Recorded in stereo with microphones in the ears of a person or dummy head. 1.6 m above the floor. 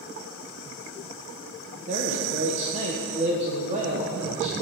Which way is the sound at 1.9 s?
40° right (ahead or behind).